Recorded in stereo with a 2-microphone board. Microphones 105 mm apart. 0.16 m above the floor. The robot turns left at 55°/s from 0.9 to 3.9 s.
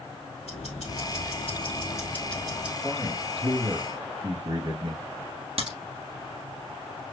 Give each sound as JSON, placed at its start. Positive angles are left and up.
{"t": 0.5, "sound": "ticking", "azimuth_deg": 85, "distance_m": 2.5}
{"t": 2.8, "sound": "a man speaking", "azimuth_deg": -10, "distance_m": 1.7}
{"t": 5.6, "sound": "a crack", "side_deg": -60, "distance_m": 1.8}